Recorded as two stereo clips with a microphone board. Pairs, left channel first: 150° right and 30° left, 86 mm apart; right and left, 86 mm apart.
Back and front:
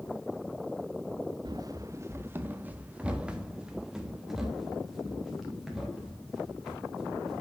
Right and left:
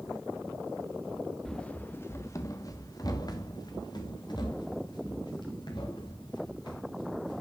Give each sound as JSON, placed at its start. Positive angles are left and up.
{"t": 1.4, "sound": "running footsteps", "azimuth_deg": -5, "distance_m": 0.8}